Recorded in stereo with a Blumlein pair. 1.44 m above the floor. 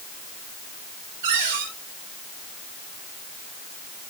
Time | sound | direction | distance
1.2 | a cupboard door | 55° right | 5.5 m